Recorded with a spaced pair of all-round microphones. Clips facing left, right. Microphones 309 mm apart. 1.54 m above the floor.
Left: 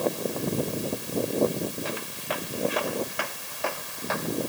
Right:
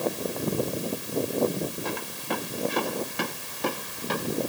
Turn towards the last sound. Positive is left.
turn(degrees=-40)  # may be behind; listen again after turning